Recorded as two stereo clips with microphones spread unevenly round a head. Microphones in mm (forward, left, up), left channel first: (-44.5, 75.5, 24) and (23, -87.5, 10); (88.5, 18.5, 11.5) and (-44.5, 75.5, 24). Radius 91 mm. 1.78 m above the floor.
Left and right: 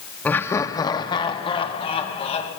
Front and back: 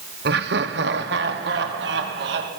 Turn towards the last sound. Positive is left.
turn(degrees=170)